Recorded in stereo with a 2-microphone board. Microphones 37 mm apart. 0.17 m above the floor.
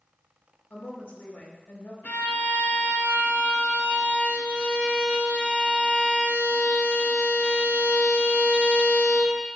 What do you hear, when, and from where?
0.7 s a woman speaking: 65° left (ahead or behind), 3.5 m
2.0 s a violin: 45° left (ahead or behind), 1.4 m